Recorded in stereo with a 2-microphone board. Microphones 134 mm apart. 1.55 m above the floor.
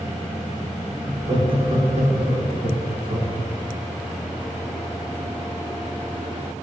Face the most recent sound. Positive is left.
turn(degrees=-80)